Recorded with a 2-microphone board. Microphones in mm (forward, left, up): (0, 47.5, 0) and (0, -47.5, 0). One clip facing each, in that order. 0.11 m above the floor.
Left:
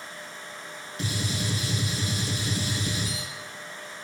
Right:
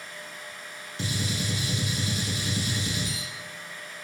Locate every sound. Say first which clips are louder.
1.0 s a gunshot: even; 30° right (ahead or behind), 0.9 m